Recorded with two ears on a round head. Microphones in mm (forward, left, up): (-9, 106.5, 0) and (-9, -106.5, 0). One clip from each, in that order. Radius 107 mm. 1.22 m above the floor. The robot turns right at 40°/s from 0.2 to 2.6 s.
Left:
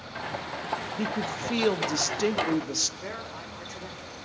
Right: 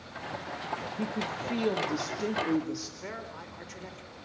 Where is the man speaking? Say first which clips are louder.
Left 3 dB; 5° left (ahead or behind), 4.5 m.